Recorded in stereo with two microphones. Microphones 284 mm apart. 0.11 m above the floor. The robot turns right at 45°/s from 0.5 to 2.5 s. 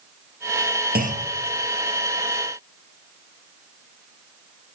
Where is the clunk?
30° right (ahead or behind), 1.3 m; by 1.3 s 20° right (ahead or behind), 1.3 m.